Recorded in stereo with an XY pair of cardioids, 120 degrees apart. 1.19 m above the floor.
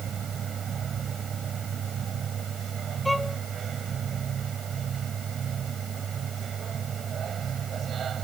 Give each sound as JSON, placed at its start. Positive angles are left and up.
{"t": 0.0, "sound": "a machine running", "azimuth_deg": -40}
{"t": 3.0, "sound": "a violin", "azimuth_deg": 10}